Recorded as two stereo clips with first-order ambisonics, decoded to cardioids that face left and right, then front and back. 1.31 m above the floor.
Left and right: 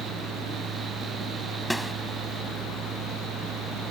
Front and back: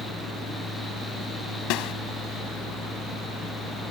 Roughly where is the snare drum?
Ahead.